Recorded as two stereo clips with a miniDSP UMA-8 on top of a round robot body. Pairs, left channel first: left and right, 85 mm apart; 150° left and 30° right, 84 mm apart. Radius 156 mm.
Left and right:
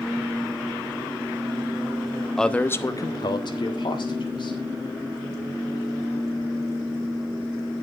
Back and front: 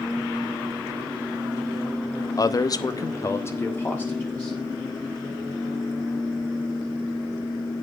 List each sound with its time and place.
2.4 s a man speaking: 175° left, 1.2 m; by 4.6 s 75° left, 3 m